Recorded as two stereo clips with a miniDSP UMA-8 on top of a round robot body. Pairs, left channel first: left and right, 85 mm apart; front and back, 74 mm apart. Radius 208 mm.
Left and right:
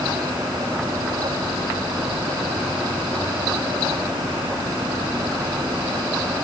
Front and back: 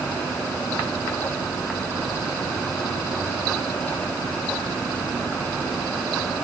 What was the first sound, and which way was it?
Only background noise.